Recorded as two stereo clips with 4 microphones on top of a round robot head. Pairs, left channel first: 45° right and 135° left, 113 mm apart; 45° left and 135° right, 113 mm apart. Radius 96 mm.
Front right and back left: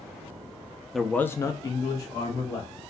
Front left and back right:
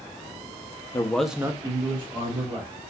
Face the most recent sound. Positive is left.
turn(degrees=-100)